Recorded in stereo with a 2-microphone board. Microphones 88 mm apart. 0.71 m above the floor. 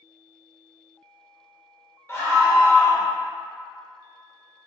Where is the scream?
30° left (ahead or behind), 0.9 m.